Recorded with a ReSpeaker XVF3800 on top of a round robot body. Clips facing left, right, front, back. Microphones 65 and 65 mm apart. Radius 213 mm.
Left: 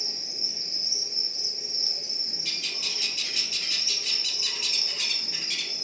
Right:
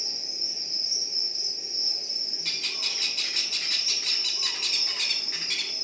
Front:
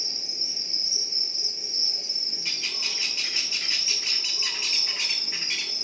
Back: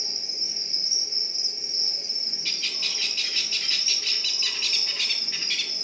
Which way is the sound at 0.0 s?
120° left.